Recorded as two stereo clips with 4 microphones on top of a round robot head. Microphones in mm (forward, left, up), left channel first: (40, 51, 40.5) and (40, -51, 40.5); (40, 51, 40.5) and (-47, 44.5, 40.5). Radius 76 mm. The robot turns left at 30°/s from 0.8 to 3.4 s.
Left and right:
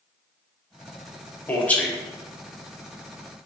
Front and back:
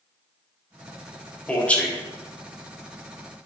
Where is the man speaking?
55° left, 0.8 m; by 1.9 s 40° left, 0.8 m.